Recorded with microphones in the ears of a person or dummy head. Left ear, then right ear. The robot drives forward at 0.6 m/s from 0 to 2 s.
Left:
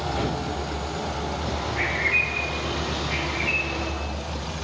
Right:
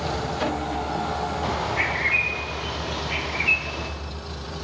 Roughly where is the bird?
Right.